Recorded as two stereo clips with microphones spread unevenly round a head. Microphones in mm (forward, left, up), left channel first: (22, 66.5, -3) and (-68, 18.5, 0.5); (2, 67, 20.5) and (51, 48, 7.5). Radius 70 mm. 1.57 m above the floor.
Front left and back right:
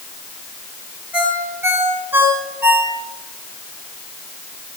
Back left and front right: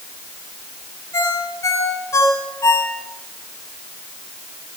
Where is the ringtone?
135° left, 9 m.